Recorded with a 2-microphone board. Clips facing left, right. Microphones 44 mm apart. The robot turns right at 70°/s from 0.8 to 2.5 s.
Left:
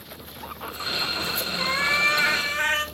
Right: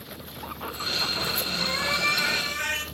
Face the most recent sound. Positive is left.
turn(degrees=120)